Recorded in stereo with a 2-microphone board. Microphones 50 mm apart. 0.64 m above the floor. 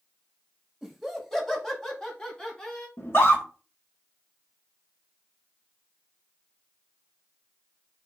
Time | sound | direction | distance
0.8 | laughter | 5° right (ahead or behind) | 1.1 m
3.0 | a scream | 55° left (ahead or behind) | 1.4 m